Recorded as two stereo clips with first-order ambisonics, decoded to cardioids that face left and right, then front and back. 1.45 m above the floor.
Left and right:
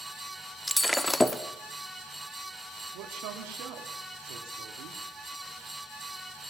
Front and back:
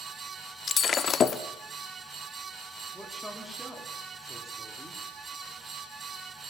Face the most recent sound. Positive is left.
turn(degrees=-85)